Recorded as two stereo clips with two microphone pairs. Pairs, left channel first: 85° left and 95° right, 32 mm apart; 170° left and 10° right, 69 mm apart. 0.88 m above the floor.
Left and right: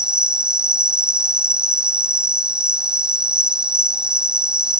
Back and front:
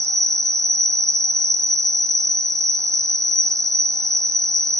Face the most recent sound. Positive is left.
turn(degrees=-40)